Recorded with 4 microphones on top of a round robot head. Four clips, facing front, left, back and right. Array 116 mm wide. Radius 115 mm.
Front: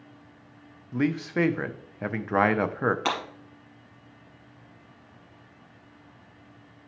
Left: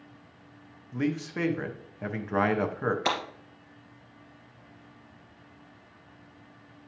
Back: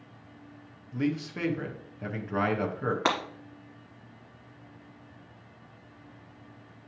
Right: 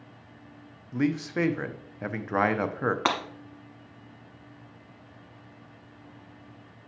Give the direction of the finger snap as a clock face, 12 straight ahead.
No finger snap in this recording.